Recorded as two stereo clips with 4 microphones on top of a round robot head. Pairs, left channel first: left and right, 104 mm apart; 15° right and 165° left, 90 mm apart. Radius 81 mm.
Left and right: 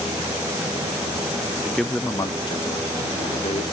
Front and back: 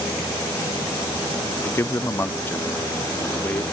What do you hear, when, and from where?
1.6 s a man speaking: 20° right, 0.5 m; by 3.6 s 60° left, 1.4 m